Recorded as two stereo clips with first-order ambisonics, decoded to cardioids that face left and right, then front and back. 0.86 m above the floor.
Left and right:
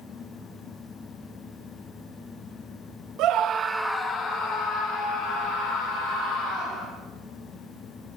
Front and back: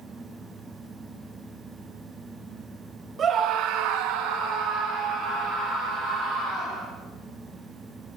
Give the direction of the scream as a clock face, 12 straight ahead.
4 o'clock.